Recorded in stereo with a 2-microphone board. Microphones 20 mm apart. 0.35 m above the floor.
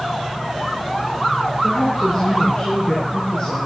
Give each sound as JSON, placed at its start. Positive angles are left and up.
{"t": 1.6, "sound": "a woman speaking", "side_deg": 50, "distance_m": 5.0}